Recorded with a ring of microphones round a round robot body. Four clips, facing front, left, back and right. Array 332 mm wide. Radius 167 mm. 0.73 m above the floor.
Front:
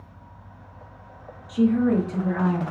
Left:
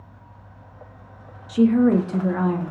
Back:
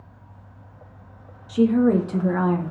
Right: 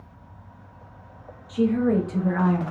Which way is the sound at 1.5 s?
115° left.